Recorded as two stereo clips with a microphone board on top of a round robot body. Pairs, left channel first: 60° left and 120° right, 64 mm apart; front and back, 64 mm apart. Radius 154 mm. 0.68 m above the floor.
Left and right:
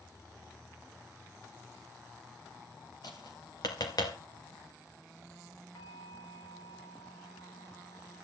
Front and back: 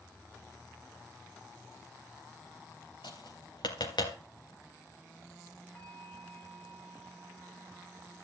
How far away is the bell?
About 4 m.